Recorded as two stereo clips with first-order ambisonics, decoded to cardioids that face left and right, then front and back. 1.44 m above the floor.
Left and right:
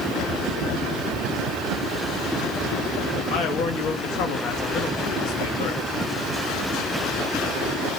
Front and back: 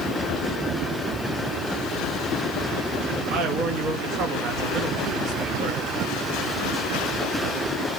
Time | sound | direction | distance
3.3 | a man speaking | 130° left | 1.2 m